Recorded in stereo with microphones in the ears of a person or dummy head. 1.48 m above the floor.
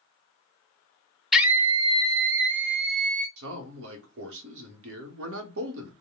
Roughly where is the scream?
Centre.